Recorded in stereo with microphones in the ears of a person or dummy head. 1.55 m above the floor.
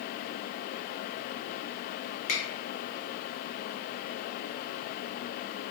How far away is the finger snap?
About 1.4 m.